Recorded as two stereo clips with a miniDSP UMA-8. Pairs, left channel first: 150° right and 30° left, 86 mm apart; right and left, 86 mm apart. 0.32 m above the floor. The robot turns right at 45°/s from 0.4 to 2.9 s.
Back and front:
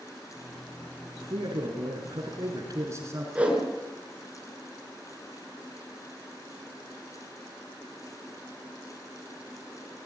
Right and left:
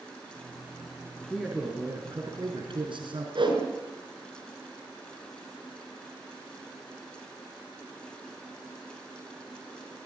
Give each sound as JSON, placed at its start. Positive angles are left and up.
{"t": 1.2, "sound": "a man speaking", "azimuth_deg": 5, "distance_m": 5.0}
{"t": 3.4, "sound": "a whoosh", "azimuth_deg": 105, "distance_m": 5.5}